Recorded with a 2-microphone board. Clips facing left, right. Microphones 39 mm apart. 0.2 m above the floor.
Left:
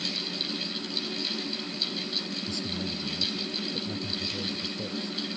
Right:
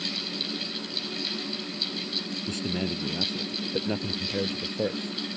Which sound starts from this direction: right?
A man speaking, at 2.5 s.